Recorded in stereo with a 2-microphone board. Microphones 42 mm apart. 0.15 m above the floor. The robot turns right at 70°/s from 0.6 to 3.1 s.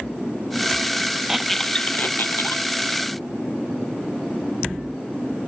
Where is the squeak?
10° right (ahead or behind), 0.7 m; by 2.6 s 80° left, 0.7 m.